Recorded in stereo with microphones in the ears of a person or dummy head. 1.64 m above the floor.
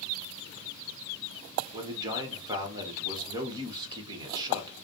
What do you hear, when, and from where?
1.7 s a man speaking: 30° right (ahead or behind), 1.3 m